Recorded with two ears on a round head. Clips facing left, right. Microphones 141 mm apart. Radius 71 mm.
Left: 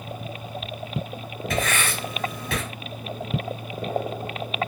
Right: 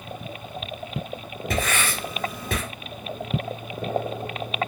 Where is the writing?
30° right (ahead or behind), 2 m.